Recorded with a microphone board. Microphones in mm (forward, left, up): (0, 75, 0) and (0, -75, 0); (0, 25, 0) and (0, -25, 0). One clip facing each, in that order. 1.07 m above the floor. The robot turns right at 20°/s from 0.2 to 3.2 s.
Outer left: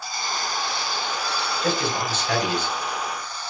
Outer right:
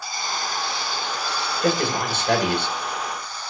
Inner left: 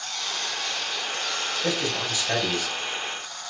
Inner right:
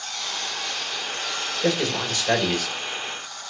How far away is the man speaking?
About 1.7 m.